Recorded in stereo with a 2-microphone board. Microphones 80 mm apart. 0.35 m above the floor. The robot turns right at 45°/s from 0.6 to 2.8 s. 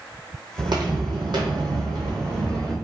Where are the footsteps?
65° right (ahead or behind), 0.8 m; by 2.7 s 55° right (ahead or behind), 1.3 m.